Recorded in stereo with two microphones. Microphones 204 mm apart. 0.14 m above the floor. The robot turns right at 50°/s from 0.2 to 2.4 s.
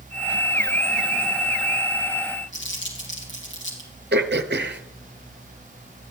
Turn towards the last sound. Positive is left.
turn(degrees=-55)  # may be behind; listen again after turning